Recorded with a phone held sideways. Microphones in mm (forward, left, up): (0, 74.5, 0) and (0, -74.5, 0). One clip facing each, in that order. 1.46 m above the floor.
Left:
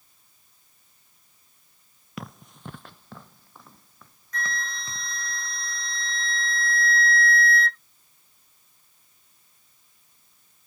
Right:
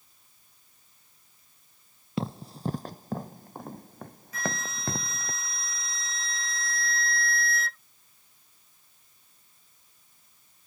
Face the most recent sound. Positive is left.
turn(degrees=-5)  # may be behind; listen again after turning